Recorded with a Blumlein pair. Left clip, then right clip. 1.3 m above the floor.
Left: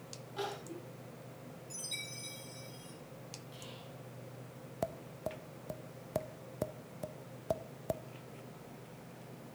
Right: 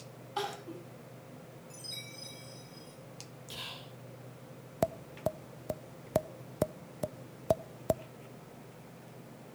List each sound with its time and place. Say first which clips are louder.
0.4 s crying: right 4 dB; 35° right, 7.5 m
1.7 s a chime: left 2 dB; 15° left, 7 m
3.5 s whispering: right 7 dB; 45° right, 2.5 m
4.8 s tapping: right 7 dB; 70° right, 0.5 m